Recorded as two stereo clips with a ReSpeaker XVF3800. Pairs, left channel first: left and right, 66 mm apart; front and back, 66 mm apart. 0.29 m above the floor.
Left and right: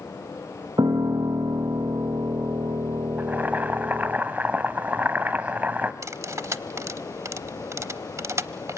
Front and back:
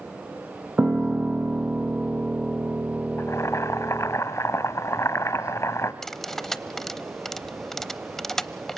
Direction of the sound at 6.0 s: 85° right.